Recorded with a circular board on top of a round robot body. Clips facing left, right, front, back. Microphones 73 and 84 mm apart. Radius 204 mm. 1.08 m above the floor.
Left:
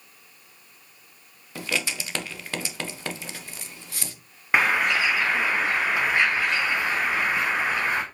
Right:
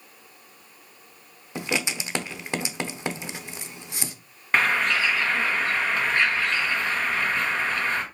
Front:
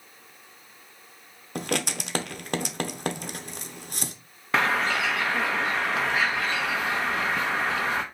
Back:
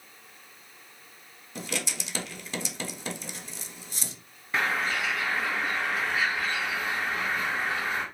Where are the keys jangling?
I don't hear keys jangling.